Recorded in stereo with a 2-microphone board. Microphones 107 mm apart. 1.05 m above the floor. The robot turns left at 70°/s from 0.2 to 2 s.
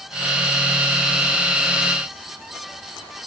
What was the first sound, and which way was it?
Only background noise.